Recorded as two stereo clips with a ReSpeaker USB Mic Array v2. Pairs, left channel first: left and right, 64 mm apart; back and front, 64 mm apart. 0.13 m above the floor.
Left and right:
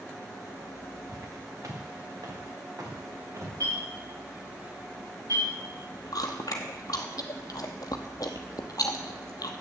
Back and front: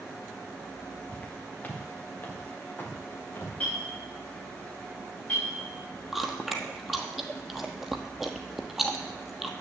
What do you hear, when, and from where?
1.1 s footsteps: 110° right, 2.5 m; by 3.5 s 125° right, 4 m
3.6 s a clink: 105° right, 7 m
6.1 s chewing: 90° left, 1.1 m